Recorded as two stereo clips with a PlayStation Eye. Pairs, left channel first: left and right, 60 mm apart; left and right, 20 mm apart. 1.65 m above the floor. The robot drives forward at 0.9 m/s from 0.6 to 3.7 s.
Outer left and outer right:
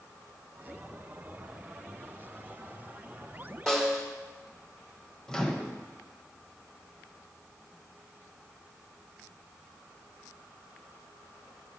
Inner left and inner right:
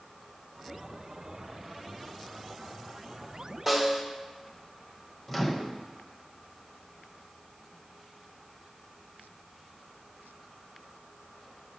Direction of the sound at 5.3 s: 10° left (ahead or behind).